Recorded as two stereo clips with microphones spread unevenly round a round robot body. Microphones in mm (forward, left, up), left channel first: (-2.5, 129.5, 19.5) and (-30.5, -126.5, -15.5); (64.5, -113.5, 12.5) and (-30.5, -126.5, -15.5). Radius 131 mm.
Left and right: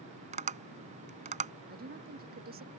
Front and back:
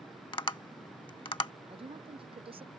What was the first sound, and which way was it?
Tapping, 30° right.